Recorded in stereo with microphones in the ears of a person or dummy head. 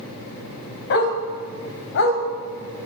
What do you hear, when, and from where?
0.9 s a dog barking: 55° left (ahead or behind), 2.5 m; by 2.2 s 60° left (ahead or behind), 2.5 m